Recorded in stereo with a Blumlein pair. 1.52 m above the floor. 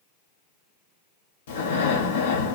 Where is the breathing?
60° left, 0.8 m.